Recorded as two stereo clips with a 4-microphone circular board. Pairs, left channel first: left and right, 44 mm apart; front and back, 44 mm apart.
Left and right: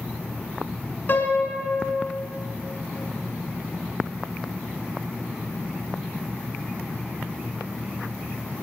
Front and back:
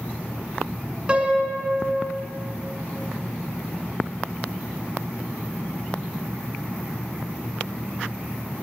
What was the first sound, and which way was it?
A piano, 120° left.